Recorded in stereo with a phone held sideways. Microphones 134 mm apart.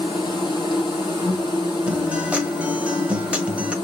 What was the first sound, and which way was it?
An insect, 30° left (ahead or behind).